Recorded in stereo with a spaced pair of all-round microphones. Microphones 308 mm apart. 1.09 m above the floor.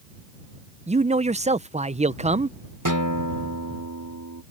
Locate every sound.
0.9 s a man speaking: 20° right (ahead or behind)
2.9 s a guitar: 80° right